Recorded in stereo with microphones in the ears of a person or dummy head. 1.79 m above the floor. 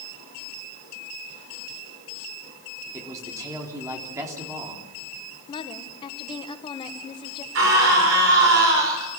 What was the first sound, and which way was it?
A man speaking, 15° right (ahead or behind).